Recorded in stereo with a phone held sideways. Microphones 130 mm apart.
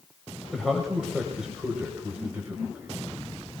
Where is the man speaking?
Centre (ahead or behind), 3.5 m; by 3.6 s 30° right (ahead or behind), 4 m.